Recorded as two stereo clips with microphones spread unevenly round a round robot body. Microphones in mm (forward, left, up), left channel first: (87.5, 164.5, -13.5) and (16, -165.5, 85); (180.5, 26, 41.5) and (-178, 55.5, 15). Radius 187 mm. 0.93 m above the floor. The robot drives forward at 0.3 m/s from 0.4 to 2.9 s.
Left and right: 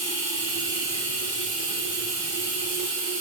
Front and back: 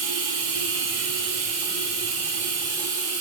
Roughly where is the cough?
I don't hear a cough.